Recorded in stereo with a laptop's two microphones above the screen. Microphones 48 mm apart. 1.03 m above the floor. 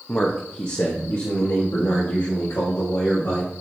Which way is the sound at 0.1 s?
30° left (ahead or behind).